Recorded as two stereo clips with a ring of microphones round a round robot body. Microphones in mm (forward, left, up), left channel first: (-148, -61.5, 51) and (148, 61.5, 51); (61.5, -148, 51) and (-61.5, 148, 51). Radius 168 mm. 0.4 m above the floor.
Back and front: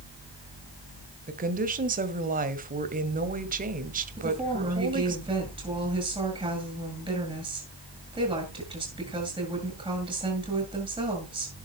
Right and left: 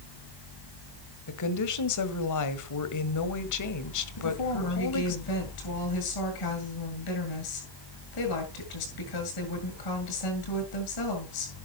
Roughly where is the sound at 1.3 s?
Ahead right.